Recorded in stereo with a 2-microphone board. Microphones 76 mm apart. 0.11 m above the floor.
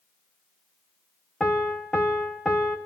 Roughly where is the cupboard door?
I don't hear a cupboard door.